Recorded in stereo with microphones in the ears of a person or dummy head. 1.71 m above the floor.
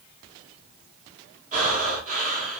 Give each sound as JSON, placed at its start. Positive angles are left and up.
{"t": 1.5, "sound": "breathing", "side_deg": -45, "distance_m": 1.2}